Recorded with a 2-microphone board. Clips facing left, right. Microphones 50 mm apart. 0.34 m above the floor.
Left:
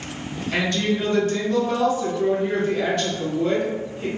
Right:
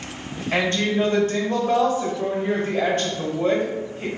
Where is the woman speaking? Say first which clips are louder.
Right 2 dB; 35° right (ahead or behind), 1.5 m.